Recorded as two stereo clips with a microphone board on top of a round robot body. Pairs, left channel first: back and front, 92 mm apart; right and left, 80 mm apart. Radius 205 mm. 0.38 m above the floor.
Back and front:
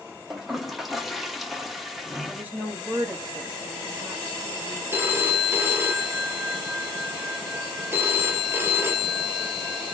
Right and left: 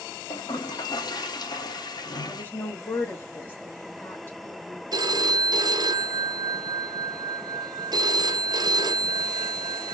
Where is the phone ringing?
65° left, 1.1 m.